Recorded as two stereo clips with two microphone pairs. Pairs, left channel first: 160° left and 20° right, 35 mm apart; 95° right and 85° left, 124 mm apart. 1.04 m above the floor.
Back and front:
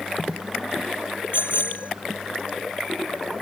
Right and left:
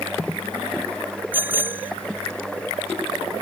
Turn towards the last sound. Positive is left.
turn(degrees=155)